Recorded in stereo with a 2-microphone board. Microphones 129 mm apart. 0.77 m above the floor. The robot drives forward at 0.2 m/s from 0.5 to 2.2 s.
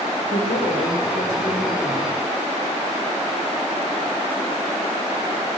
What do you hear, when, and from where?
0.3 s a woman speaking: 75° left (ahead or behind), 2.5 m